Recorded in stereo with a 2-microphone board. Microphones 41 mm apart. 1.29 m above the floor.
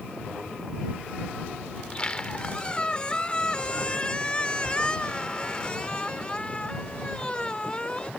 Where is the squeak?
25° left (ahead or behind).